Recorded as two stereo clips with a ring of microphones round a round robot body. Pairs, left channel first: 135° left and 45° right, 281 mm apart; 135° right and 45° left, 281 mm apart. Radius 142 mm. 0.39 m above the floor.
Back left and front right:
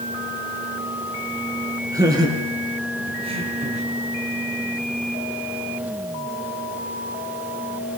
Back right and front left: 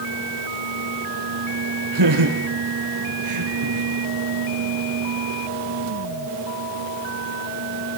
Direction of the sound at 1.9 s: 35° left.